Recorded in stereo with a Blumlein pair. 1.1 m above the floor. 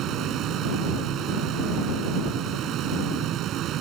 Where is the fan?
30° right.